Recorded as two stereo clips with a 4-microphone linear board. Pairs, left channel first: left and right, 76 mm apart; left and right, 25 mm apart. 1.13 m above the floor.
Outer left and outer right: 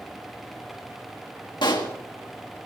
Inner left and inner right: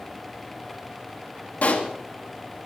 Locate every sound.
1.6 s a pop: 80° left, 1.7 m